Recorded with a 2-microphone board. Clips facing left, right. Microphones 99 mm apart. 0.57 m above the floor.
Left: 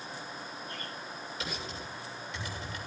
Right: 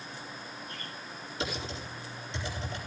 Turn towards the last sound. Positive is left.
turn(degrees=-30)  # may be behind; listen again after turning